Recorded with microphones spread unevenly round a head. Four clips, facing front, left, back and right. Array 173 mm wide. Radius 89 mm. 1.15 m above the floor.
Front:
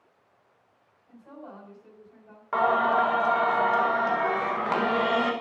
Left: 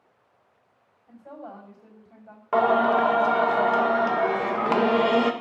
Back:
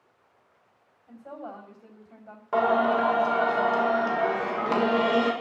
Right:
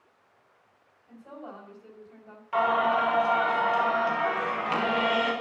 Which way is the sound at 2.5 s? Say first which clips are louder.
Left 4 dB, even; 115° left.